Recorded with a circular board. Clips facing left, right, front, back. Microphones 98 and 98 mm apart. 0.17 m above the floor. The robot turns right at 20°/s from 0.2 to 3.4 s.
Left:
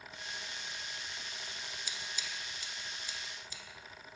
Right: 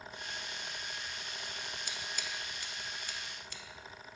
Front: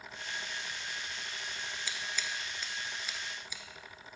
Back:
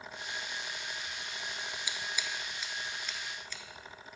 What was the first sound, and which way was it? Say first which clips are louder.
Scissors: right 2 dB, even; 110° right.